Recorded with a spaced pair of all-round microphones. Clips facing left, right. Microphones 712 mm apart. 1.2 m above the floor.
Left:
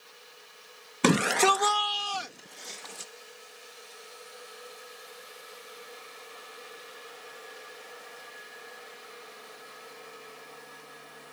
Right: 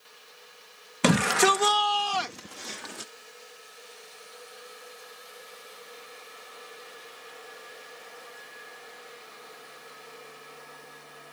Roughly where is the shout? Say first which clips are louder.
Right 1 dB; centre.